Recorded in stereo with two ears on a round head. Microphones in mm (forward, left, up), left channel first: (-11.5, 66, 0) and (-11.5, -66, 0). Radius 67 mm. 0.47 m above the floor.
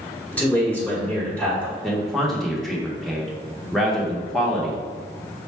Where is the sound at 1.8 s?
Centre (ahead or behind), 0.9 m.